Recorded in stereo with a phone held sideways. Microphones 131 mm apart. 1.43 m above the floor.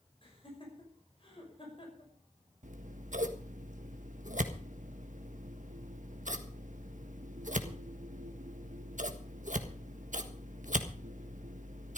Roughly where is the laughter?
Left.